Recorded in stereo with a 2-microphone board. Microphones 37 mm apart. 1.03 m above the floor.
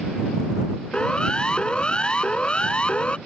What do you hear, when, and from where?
0.9 s a siren: 25° left (ahead or behind); by 3.2 s 30° left (ahead or behind)